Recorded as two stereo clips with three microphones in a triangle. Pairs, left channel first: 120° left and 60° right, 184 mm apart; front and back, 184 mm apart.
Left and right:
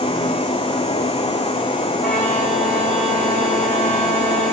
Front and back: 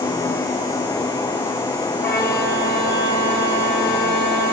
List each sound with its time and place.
2.0 s a violin: 80° left, 4 m